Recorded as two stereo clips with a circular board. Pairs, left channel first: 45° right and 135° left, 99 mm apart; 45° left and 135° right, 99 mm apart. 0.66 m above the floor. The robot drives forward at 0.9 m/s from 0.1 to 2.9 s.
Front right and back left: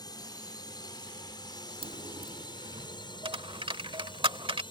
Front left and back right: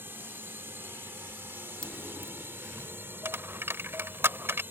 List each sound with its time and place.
0.0 s a drone: 75° right; by 4.7 s 70° right
1.8 s a dropped coin: 125° left; by 4.6 s 160° left